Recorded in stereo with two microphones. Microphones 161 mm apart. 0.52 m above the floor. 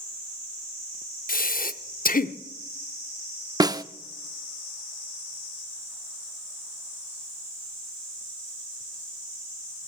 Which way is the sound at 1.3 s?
60° left (ahead or behind).